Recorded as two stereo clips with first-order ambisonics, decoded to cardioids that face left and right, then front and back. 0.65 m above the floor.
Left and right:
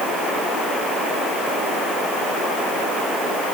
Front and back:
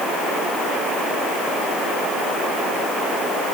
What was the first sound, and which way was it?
Only background noise.